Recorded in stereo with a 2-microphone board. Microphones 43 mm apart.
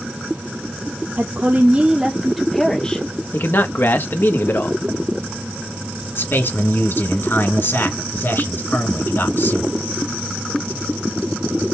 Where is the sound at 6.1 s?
60° left (ahead or behind), 1.7 m.